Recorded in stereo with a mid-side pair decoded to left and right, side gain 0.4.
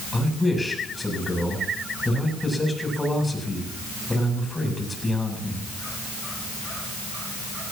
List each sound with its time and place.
0.1 s a man speaking: 15° left, 9 m